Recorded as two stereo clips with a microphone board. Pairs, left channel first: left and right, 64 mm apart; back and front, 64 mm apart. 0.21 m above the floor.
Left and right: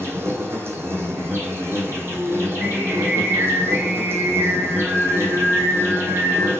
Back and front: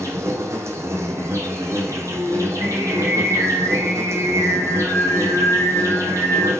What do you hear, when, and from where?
0.0 s an insect: 40° right, 0.8 m
2.1 s singing: 35° right, 1.9 m